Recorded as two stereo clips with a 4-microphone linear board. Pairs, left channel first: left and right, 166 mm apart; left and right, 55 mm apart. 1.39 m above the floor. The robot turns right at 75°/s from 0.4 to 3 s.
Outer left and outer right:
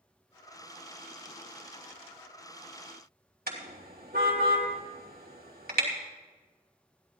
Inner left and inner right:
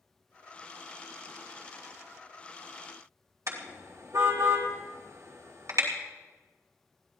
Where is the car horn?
65° right (ahead or behind), 3 m.